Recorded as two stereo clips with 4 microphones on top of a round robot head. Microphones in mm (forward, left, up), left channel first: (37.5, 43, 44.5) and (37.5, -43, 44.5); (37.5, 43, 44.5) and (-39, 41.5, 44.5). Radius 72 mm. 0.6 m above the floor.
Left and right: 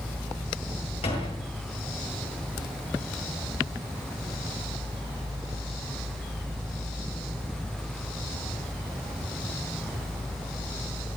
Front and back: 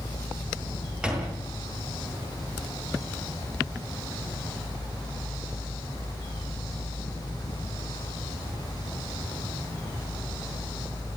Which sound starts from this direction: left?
A door slam, at 1.0 s.